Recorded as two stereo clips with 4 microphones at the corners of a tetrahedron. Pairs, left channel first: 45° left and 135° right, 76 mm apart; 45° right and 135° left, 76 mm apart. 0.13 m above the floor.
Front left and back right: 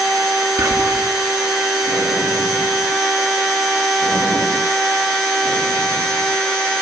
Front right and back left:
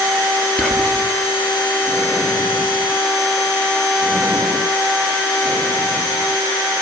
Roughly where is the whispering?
Behind right.